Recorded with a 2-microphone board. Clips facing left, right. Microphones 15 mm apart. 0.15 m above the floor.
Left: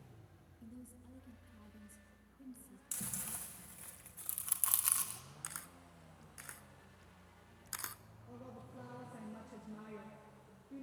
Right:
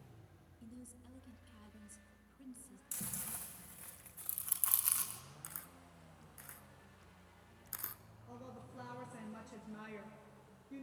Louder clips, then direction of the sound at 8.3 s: Even; 55° right (ahead or behind).